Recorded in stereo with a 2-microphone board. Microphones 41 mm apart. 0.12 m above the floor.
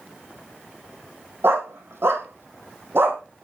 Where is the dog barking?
75° right (ahead or behind), 1.9 m; by 3.2 s 60° right (ahead or behind), 1.8 m.